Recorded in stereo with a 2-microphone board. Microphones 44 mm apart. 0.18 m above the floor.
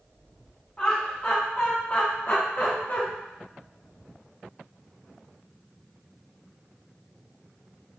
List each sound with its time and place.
0.8 s laughter: 25° left (ahead or behind), 1.4 m; by 3.0 s 45° left (ahead or behind), 1.8 m